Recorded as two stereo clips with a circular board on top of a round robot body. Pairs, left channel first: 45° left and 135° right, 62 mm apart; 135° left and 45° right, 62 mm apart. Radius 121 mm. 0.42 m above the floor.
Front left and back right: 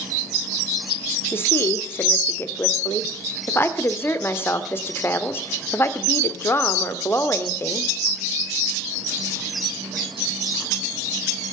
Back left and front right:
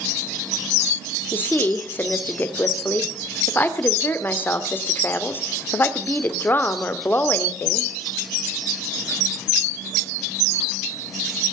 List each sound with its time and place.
1.3 s a woman speaking: 90° left, 1.9 m